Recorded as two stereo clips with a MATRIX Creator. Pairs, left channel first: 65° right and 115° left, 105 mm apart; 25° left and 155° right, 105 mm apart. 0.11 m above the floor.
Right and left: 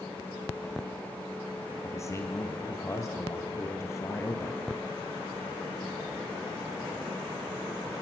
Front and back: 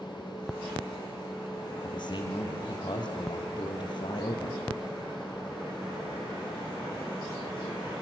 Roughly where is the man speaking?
Ahead.